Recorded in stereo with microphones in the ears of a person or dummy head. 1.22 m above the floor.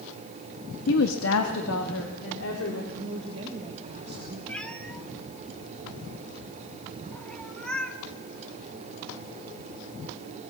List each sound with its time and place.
0.9 s a woman speaking: 75° left (ahead or behind), 1.3 m; by 2.8 s 85° left, 3 m
2.9 s a woman speaking: 30° right (ahead or behind), 1.9 m
4.5 s a cat meowing: 5° left (ahead or behind), 1.1 m